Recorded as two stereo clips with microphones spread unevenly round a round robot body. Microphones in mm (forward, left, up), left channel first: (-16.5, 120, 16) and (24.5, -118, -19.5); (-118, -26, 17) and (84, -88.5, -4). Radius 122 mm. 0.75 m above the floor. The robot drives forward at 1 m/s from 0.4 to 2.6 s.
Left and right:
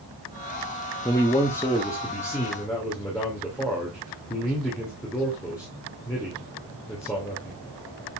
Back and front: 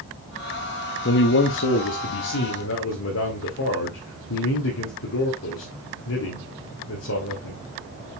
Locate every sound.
1.1 s a man speaking: 175° right, 0.8 m; by 7.6 s straight behind, 2 m